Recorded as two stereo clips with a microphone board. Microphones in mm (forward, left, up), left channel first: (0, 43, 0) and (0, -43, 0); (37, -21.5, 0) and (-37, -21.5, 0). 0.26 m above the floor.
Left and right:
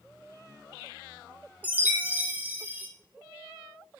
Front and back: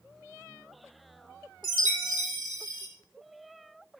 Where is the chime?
20° right, 3.5 m.